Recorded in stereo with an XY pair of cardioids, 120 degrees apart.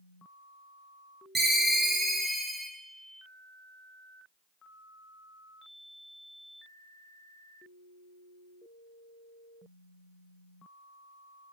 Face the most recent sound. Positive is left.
turn(degrees=-30)